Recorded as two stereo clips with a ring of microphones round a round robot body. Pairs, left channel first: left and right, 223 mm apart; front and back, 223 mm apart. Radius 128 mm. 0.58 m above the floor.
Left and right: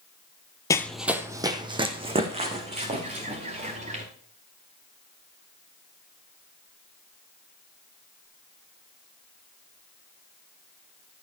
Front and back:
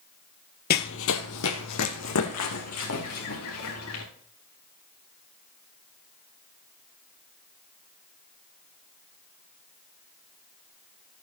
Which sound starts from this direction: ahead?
Running footsteps, at 0.7 s.